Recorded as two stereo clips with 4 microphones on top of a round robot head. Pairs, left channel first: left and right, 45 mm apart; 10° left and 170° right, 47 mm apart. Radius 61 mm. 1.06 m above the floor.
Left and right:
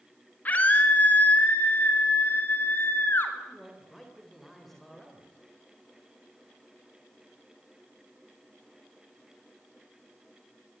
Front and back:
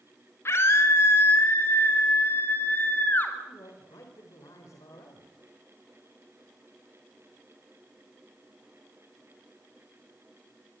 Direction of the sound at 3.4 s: 5° left.